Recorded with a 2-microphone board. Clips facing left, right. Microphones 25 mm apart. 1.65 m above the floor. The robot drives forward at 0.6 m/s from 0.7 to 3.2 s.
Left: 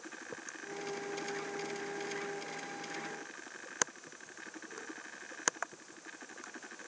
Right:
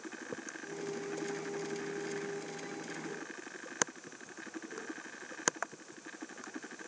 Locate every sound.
Only background noise.